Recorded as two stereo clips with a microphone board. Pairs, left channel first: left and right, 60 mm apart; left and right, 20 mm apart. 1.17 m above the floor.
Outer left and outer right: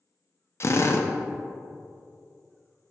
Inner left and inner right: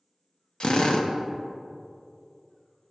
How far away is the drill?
About 0.5 m.